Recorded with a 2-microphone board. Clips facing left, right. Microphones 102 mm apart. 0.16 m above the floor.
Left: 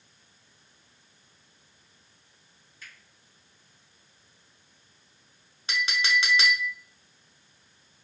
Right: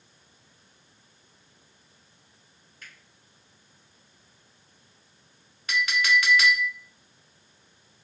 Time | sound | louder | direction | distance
2.8 | a finger snap | even | 55° right (ahead or behind) | 1.7 m
5.7 | a clink | right 3 dB | 25° left (ahead or behind) | 0.8 m